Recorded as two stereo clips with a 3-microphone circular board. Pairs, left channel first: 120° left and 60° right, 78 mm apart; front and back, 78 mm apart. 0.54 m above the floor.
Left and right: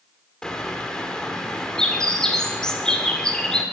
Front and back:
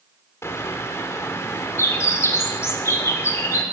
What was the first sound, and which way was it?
A bird, 40° left.